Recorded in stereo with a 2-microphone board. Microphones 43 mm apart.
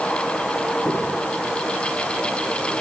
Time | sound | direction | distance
0.8 | footsteps | 70° left (ahead or behind) | 8.5 m